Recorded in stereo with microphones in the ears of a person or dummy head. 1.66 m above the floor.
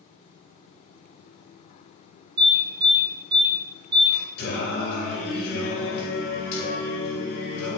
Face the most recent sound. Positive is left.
turn(degrees=60)  # may be behind; listen again after turning